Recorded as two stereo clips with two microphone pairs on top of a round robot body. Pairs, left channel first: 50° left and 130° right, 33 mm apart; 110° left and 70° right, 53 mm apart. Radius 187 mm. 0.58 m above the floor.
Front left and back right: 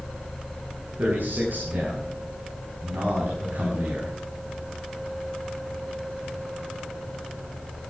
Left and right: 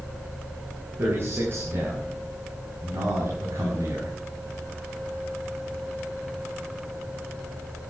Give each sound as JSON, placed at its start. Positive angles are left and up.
{"t": 1.0, "sound": "a man speaking", "azimuth_deg": -115, "distance_m": 9.0}